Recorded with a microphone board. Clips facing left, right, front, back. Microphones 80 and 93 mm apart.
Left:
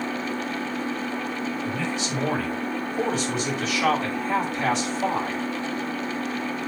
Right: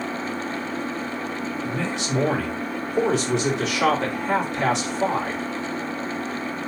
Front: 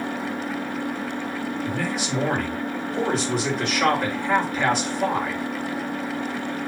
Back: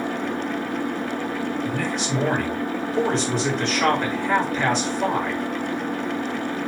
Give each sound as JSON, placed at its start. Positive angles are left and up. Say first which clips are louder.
{"t": 0.0, "sound": "an engine running", "louder": "even, back 2 dB", "azimuth_deg": -175, "distance_m": 2.0}
{"t": 1.6, "sound": "a man speaking", "louder": "right 1 dB, back 1 dB", "azimuth_deg": -85, "distance_m": 4.0}